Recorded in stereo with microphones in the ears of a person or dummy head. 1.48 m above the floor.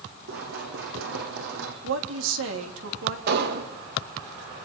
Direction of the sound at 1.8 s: 85° right.